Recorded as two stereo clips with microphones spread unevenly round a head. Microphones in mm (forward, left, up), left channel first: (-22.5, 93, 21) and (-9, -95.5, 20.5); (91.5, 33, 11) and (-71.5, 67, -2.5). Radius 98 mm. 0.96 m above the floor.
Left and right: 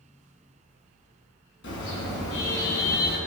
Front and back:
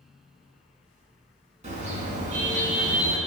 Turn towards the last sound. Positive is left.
turn(degrees=130)